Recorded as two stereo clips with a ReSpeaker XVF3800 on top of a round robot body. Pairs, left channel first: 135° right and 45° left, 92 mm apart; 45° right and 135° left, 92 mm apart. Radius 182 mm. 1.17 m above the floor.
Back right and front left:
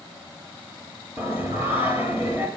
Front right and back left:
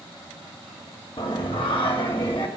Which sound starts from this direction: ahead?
Singing, at 1.2 s.